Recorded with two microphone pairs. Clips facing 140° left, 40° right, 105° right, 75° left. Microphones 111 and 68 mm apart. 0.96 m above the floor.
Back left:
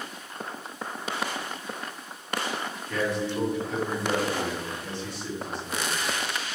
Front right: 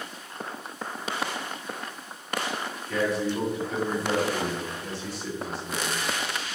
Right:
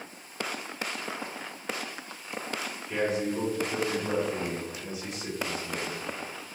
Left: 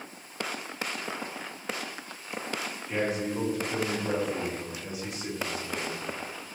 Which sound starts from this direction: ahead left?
A man speaking, at 2.9 s.